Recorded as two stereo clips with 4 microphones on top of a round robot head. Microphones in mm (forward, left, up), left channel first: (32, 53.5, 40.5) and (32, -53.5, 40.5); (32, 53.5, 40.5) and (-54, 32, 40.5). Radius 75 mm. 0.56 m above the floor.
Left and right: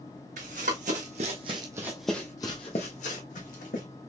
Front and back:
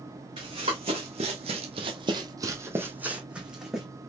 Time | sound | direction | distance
0.4 | running footsteps | 115° right | 1.7 m